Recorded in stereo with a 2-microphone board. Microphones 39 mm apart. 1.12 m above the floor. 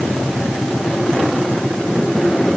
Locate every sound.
Only background noise.